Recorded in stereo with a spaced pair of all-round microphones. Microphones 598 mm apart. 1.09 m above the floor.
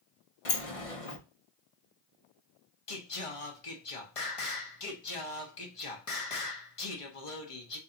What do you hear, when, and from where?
0.5 s a sliding door: 65° left (ahead or behind), 1.0 m
2.9 s singing: 60° left (ahead or behind), 1.1 m